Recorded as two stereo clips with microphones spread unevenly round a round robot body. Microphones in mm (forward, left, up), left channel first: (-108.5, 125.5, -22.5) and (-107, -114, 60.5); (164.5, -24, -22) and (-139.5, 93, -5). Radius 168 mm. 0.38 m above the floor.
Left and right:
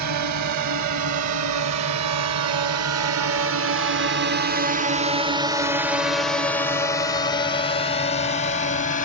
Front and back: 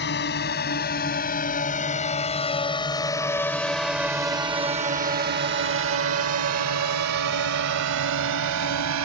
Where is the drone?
75° right; by 9.1 s 130° left.